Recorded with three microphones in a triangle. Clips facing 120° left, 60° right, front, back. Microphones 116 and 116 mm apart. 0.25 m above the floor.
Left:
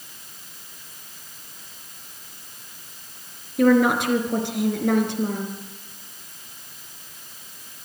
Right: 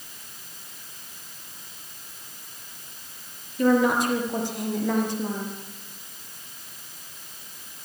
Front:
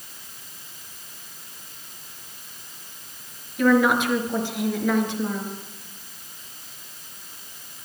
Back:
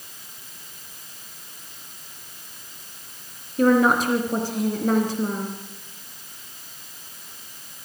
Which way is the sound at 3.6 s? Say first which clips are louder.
Left 3 dB, back 1 dB; 130° left.